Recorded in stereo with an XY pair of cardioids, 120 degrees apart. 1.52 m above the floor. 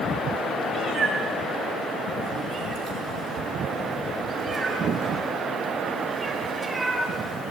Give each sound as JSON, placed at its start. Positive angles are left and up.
{"t": 0.7, "sound": "a cat meowing", "azimuth_deg": -55, "distance_m": 8.0}